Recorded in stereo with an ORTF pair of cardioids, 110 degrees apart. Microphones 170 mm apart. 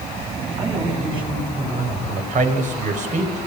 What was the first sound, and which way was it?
A man speaking, 35° right.